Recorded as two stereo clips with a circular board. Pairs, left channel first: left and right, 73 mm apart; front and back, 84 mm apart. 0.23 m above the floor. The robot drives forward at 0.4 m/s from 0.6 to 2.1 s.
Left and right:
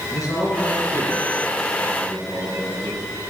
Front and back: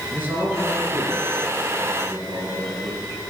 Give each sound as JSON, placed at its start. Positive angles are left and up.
{"t": 0.1, "sound": "a man speaking", "azimuth_deg": 120, "distance_m": 4.5}